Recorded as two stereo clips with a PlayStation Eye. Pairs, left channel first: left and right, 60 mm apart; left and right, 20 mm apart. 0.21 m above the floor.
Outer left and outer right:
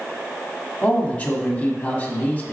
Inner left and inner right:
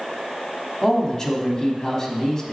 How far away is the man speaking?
About 1.4 m.